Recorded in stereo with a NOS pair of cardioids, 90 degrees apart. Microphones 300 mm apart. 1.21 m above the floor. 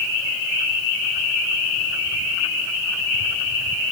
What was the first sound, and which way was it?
Only background noise.